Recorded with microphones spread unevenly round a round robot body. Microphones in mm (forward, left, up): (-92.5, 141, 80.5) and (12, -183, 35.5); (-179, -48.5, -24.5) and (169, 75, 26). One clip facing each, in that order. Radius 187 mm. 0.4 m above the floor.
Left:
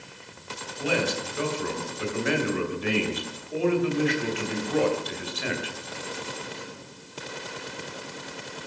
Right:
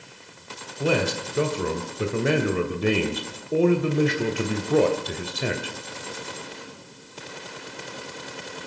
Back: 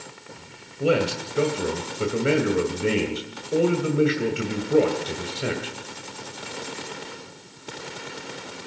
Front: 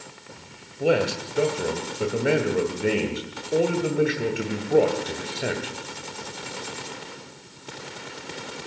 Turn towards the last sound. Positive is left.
turn(degrees=-85)